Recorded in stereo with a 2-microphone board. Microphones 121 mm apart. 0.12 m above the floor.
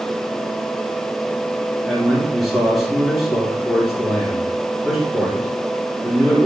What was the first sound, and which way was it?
A man speaking, centre (ahead or behind).